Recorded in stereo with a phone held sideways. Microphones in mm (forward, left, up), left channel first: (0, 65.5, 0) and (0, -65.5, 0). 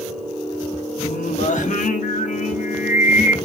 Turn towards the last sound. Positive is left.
turn(degrees=80)